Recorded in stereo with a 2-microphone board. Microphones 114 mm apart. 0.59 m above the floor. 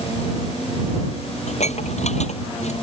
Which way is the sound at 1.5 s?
80° left.